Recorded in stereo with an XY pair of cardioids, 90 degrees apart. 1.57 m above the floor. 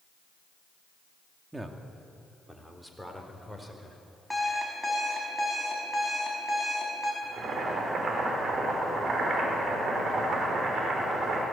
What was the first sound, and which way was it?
A man speaking, 20° right.